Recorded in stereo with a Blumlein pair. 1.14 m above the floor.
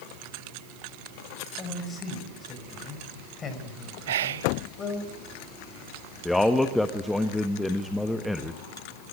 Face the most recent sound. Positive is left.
turn(degrees=5)